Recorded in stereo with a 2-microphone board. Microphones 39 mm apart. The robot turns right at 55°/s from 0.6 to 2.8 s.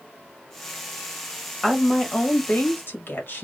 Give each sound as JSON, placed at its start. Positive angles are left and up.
{"t": 1.6, "sound": "a woman speaking", "azimuth_deg": -5, "distance_m": 1.5}